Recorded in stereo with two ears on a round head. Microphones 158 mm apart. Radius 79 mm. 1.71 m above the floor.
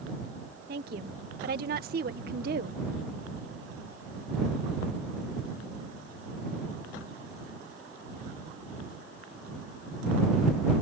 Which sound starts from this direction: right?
A woman speaking, at 0.7 s.